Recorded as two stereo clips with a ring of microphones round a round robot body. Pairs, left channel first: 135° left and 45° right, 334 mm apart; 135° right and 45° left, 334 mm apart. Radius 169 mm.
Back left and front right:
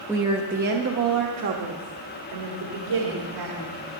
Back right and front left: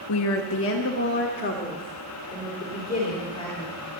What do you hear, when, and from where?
0.1 s a woman speaking: 130° right, 0.9 m; by 3.9 s 60° right, 3 m